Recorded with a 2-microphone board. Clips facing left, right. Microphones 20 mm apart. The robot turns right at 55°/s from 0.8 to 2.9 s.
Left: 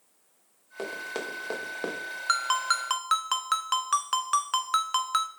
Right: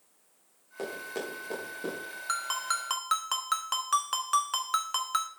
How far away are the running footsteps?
About 3 m.